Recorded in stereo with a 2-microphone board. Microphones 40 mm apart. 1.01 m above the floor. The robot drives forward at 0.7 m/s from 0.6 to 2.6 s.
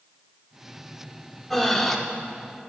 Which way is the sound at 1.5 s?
5° left (ahead or behind).